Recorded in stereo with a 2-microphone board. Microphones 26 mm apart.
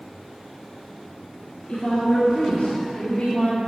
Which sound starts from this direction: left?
A woman speaking, at 1.7 s.